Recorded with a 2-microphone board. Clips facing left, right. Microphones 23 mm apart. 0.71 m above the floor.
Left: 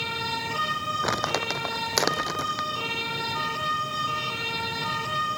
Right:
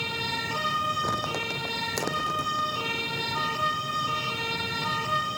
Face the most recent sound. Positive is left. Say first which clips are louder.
# left 2 dB
turn(degrees=55)  # may be behind; listen again after turning